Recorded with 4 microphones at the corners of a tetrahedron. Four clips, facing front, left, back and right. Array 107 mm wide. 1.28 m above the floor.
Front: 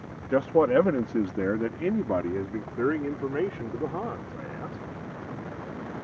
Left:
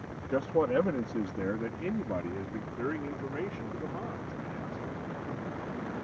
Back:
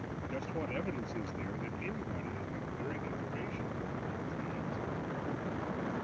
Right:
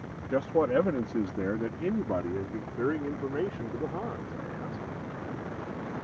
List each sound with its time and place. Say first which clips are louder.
0.3 s a man speaking: right 2 dB, front 19 dB; straight ahead; by 4.8 s 20° right